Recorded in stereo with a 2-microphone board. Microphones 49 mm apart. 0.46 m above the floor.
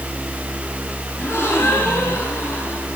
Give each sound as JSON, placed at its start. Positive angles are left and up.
{"t": 1.2, "sound": "a gasp", "side_deg": 50, "distance_m": 7.0}